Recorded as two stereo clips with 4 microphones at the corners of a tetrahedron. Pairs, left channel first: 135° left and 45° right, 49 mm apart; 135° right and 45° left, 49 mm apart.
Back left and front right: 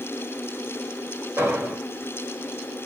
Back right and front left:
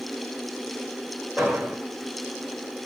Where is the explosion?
35° right, 3 m.